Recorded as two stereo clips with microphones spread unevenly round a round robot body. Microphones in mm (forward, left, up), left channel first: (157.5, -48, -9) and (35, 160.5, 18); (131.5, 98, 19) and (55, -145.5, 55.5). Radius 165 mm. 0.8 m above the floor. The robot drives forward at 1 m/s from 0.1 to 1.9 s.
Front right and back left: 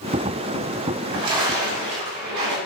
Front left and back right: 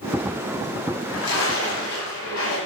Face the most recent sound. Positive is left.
turn(degrees=130)